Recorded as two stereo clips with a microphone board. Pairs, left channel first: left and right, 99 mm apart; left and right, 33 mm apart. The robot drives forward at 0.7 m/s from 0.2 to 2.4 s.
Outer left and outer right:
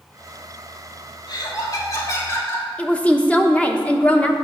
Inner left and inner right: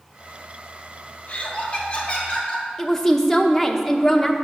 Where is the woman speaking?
15° left (ahead or behind), 0.9 m.